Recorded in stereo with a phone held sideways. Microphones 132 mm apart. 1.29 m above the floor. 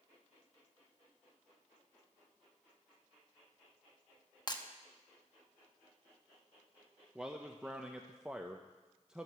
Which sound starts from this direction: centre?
A man speaking, at 7.2 s.